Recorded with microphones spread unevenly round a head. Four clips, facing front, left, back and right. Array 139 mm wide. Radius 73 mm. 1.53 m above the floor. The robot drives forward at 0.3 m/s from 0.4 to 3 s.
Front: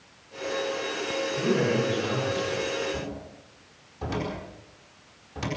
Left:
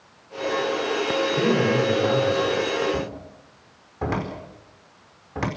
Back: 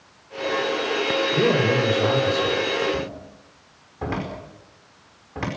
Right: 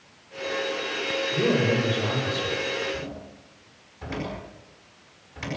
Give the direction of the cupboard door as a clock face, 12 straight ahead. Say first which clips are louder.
Left 6 dB, back 5 dB; 8 o'clock.